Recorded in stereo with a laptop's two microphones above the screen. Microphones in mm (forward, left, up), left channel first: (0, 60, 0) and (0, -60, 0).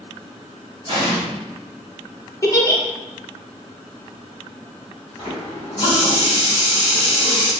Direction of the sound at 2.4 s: 30° left (ahead or behind).